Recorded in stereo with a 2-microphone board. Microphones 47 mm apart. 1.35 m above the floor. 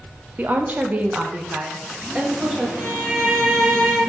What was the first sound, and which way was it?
A woman speaking, 40° right (ahead or behind).